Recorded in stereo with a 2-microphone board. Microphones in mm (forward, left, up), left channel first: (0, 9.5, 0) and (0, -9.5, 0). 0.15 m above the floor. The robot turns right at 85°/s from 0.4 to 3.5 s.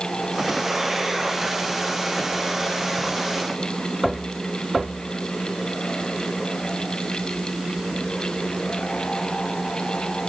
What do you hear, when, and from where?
Only background noise.